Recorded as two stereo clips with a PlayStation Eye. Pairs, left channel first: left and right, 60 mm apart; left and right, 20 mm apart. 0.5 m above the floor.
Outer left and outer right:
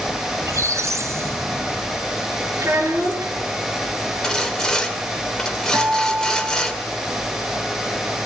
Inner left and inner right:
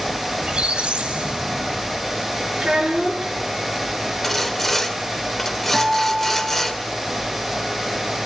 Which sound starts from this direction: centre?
Sawing, at 4.2 s.